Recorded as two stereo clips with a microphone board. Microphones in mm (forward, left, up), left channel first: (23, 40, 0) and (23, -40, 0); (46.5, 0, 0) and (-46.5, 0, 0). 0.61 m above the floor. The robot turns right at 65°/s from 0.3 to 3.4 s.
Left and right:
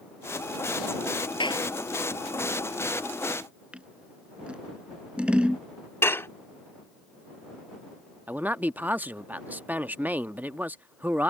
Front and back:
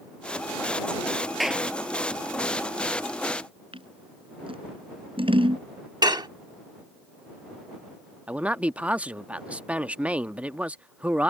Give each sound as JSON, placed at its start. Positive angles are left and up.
{"t": 1.4, "sound": "a clap", "azimuth_deg": 90}
{"t": 3.7, "sound": "scissors", "azimuth_deg": -165}
{"t": 6.0, "sound": "dishes clattering", "azimuth_deg": 145}
{"t": 8.3, "sound": "a man speaking", "azimuth_deg": -125}